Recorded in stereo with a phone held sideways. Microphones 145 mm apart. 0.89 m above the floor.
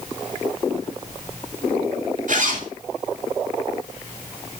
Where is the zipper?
60° right (ahead or behind), 2.5 m.